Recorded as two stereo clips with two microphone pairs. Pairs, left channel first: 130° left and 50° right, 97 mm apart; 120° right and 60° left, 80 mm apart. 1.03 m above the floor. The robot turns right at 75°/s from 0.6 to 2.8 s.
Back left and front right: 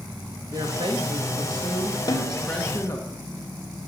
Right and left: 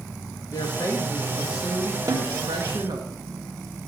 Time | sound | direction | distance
0.5 | a woman speaking | 90° right | 1.8 m
2.1 | a snare drum | 95° left | 1.5 m